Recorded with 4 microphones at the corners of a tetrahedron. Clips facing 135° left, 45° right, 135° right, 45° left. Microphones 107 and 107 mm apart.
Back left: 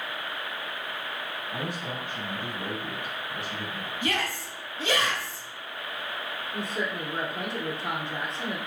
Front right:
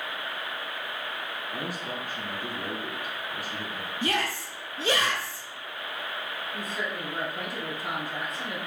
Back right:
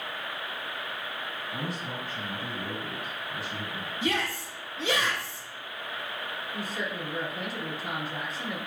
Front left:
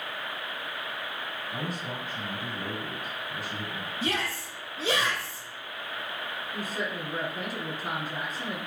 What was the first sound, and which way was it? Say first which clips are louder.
A man speaking: back left 1 dB, even; 70° left.